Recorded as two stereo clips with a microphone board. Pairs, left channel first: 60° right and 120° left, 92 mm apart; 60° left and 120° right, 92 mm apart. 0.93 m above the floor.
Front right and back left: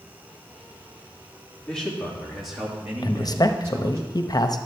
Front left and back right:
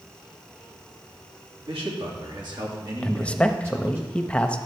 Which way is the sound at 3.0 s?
15° right.